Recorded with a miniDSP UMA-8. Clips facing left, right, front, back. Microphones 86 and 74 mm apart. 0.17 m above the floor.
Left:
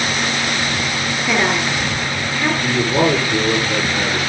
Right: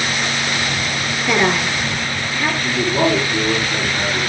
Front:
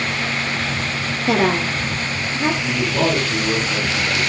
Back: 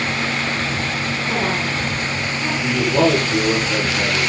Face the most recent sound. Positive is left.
turn(degrees=120)